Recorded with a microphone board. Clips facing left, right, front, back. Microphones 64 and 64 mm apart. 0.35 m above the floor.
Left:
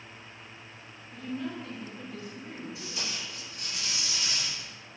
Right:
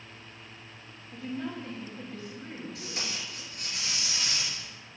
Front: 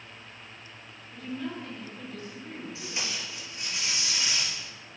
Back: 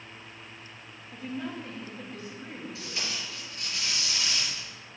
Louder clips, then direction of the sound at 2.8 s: Right 1 dB, front 1 dB; 65° right.